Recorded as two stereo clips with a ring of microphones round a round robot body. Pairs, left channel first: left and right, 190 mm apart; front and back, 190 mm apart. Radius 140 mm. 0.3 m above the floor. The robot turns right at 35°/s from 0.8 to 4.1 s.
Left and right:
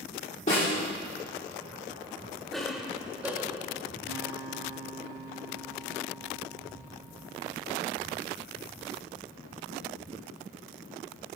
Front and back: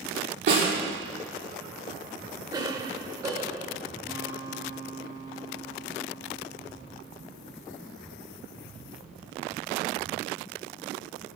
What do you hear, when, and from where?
0.5 s a snare drum: 155° left, 5 m
2.5 s a cough: 175° left, 1.4 m; by 3.8 s 140° right, 1.4 m
4.1 s a guitar: 100° right, 1.6 m